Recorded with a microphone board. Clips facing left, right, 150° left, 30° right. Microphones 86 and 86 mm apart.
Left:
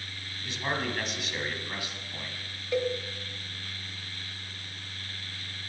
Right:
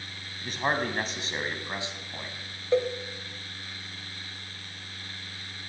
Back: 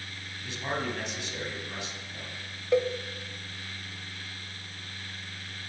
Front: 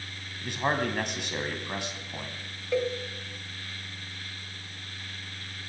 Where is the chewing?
I don't hear chewing.